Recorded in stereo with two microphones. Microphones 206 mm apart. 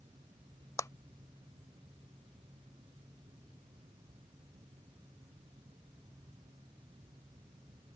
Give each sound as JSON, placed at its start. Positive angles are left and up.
{"t": 0.8, "sound": "a clap", "side_deg": 15}